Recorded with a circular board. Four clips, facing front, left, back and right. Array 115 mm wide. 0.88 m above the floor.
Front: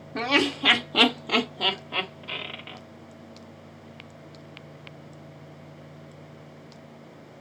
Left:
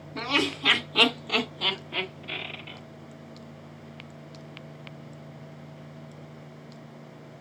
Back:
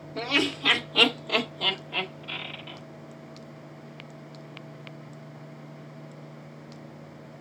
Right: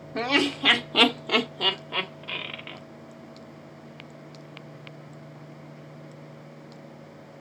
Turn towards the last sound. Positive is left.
turn(degrees=-60)